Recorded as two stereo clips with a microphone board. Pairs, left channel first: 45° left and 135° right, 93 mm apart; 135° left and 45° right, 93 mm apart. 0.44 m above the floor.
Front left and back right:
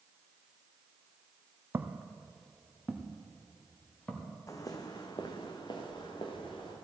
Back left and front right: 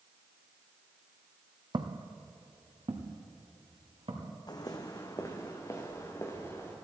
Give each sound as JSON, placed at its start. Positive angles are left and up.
{"t": 1.7, "sound": "footsteps", "azimuth_deg": -70, "distance_m": 0.9}
{"t": 4.5, "sound": "footsteps", "azimuth_deg": 100, "distance_m": 1.2}